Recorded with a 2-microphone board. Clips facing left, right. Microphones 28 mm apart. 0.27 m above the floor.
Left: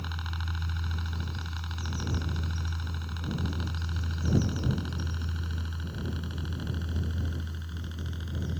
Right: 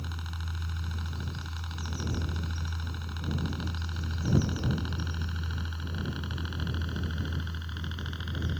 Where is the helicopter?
20° left (ahead or behind); by 8.6 s 30° right (ahead or behind).